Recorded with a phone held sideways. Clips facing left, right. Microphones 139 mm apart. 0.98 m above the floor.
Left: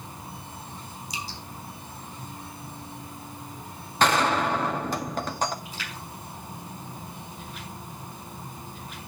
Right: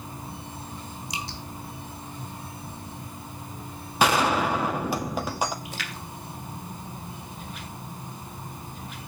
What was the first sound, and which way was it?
Dripping, 75° right (ahead or behind).